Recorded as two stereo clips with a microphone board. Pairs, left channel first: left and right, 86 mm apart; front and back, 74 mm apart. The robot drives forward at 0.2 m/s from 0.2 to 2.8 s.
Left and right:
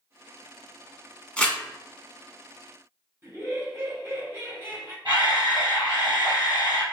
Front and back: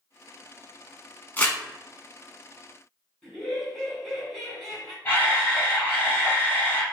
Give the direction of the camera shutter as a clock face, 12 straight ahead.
2 o'clock.